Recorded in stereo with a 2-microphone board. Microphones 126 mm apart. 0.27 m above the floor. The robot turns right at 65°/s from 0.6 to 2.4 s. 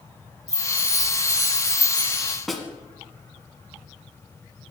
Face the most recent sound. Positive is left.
turn(degrees=0)  # may be behind; listen again after turning